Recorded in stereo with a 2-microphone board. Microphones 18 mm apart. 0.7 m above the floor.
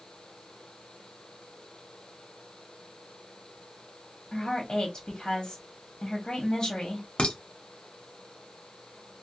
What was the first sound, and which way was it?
A woman speaking, 50° left (ahead or behind).